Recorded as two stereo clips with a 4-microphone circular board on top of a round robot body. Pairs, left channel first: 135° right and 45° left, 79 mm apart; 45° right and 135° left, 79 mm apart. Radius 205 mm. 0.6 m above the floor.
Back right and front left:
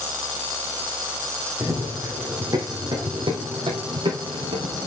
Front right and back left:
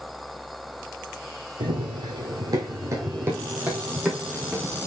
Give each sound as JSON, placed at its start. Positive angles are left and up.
{"t": 1.6, "sound": "running footsteps", "azimuth_deg": 120, "distance_m": 1.4}